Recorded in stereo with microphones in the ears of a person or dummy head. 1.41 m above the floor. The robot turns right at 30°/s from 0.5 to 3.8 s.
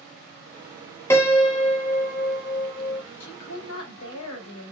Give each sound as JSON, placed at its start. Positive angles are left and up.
{"t": 1.1, "sound": "a piano", "azimuth_deg": 15, "distance_m": 0.6}
{"t": 3.2, "sound": "a woman speaking", "side_deg": 65, "distance_m": 1.3}